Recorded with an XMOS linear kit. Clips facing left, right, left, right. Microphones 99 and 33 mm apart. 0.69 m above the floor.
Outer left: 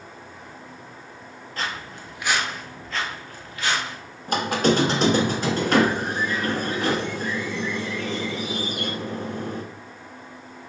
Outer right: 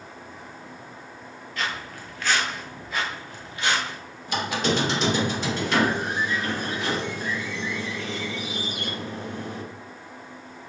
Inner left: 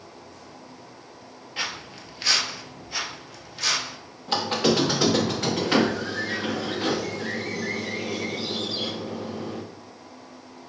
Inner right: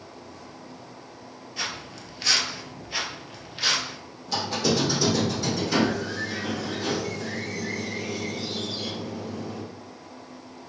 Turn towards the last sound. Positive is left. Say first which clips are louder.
# outer left 4 dB, inner left 3 dB
turn(degrees=45)  # may be behind; listen again after turning